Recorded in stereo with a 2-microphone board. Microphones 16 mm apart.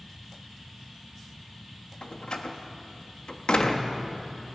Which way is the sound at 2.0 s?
60° left (ahead or behind).